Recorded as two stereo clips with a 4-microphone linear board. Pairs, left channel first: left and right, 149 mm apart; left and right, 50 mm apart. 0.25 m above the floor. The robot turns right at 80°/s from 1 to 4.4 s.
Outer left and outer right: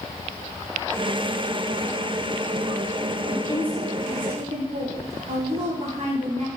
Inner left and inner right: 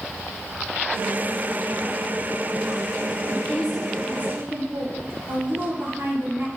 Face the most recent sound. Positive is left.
turn(degrees=-130)